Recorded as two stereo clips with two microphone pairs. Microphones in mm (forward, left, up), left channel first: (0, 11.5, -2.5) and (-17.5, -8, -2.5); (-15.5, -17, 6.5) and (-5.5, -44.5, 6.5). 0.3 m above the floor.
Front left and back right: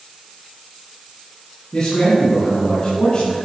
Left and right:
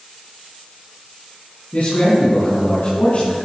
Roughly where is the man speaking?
Left.